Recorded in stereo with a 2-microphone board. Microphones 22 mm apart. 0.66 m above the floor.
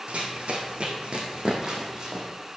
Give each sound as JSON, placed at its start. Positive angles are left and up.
{"t": 0.1, "sound": "running footsteps", "side_deg": -65, "distance_m": 2.0}